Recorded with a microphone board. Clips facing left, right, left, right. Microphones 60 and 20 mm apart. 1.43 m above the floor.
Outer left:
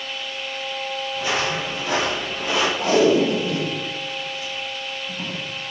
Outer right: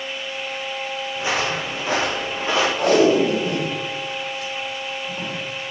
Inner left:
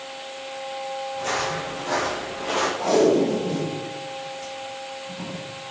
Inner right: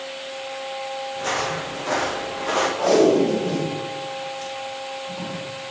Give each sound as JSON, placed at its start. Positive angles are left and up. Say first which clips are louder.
{"t": 1.1, "sound": "footsteps", "louder": "outer right 1 dB, inner right 1 dB", "side_deg": -25, "distance_m": 3.5}
{"t": 2.8, "sound": "tape being pulled", "louder": "outer right 1 dB, inner right 2 dB", "side_deg": -80, "distance_m": 4.5}